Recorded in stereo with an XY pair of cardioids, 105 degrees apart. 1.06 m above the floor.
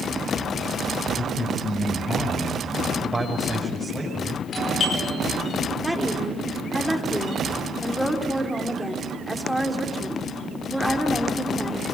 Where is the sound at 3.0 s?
15° right, 6 m.